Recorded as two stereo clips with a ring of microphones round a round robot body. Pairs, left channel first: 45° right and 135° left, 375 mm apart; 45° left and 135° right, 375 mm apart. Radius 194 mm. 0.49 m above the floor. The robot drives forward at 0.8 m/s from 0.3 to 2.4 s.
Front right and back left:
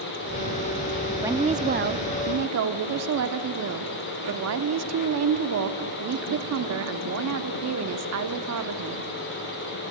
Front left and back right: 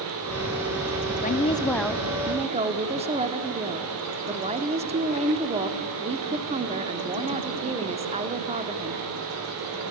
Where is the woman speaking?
60° left, 0.9 m; by 9.0 s 160° left, 1.2 m.